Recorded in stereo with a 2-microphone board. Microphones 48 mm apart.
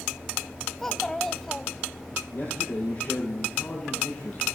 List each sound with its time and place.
0.8 s a child speaking: 10° left (ahead or behind), 0.6 m
2.3 s a man speaking: 45° left (ahead or behind), 7.5 m